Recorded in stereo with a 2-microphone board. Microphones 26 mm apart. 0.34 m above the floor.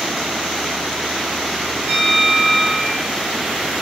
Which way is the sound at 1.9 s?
75° right (ahead or behind).